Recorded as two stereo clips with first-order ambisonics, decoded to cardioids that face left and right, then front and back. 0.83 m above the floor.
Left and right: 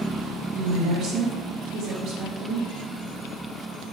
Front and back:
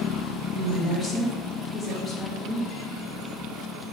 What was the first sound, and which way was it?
A woman speaking, 105° right.